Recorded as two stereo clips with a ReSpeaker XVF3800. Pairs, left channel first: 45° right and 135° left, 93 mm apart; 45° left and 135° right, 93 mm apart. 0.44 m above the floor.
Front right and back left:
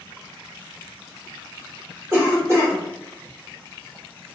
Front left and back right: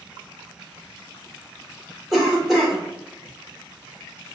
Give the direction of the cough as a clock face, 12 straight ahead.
7 o'clock.